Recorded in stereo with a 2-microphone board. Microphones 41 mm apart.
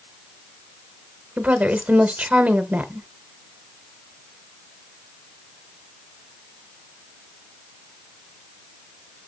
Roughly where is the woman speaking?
Right.